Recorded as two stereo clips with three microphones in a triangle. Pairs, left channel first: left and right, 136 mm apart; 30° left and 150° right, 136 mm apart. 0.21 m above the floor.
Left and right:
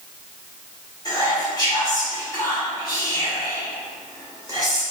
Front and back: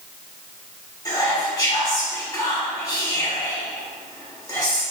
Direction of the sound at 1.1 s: 60° left.